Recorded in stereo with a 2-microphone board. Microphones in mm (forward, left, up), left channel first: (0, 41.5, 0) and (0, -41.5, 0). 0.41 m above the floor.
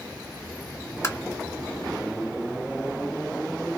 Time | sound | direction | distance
1.0 | tapping | 35° left (ahead or behind) | 1.5 m